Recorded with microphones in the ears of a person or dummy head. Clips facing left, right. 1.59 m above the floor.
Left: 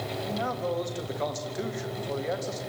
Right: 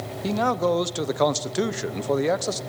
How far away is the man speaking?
About 1.0 m.